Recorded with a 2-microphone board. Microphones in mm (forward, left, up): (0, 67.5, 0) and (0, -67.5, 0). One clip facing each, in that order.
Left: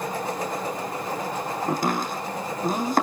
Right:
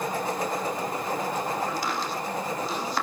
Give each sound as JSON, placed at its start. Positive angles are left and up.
{"t": 1.7, "sound": "chopping", "side_deg": 50, "distance_m": 4.5}